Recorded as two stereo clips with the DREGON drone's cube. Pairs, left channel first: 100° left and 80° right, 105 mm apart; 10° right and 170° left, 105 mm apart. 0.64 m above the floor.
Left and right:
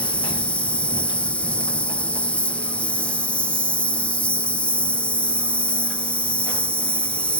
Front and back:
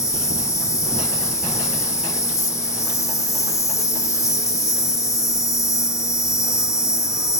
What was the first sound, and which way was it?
An insect, 30° left.